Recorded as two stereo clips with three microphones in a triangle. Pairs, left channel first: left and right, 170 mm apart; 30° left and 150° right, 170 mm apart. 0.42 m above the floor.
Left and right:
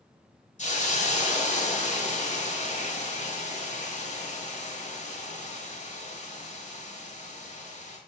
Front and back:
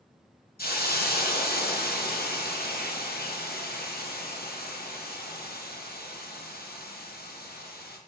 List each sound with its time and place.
0.6 s a hiss: 50° left, 1.6 m